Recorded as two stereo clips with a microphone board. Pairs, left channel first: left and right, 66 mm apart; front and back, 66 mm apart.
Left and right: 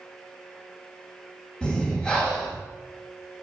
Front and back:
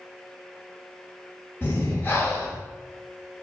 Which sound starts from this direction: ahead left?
Breathing, at 1.6 s.